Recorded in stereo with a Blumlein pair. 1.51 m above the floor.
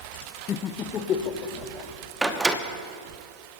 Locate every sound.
0.5 s laughter: 25° left, 0.5 m; by 1.9 s 30° left, 2.5 m
2.2 s a door slam: 5° right, 1.0 m